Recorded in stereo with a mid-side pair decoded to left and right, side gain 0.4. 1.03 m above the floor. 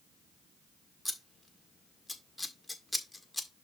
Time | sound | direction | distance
1.1 | scissors | 10° left | 1.6 m